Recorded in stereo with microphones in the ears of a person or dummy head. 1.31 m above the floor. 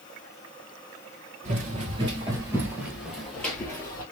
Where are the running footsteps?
35° right (ahead or behind), 2.0 m; by 4.0 s 20° left (ahead or behind), 2 m.